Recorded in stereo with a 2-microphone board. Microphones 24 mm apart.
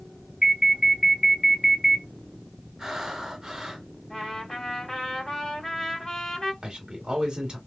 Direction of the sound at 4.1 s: 20° left (ahead or behind).